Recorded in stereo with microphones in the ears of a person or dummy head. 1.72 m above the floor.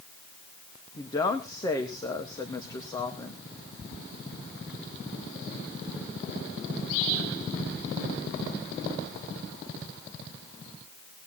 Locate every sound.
1.0 s a woman speaking: 20° left (ahead or behind), 1.6 m